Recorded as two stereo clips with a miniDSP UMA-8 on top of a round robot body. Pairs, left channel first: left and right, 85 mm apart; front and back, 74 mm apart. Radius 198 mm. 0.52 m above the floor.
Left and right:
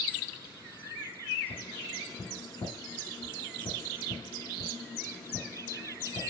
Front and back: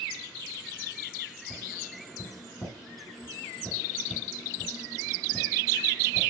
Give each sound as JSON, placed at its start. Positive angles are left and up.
{"t": 1.5, "sound": "tapping", "azimuth_deg": 95, "distance_m": 4.5}